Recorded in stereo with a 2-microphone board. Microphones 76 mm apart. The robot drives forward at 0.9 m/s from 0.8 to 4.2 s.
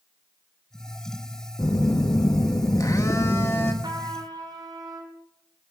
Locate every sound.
1.6 s a phone buzzing: 45° left (ahead or behind), 1.1 m; by 3.7 s 30° left (ahead or behind), 1.6 m
3.8 s a trumpet: 70° right (ahead or behind), 2 m; by 5.1 s 75° right (ahead or behind), 2 m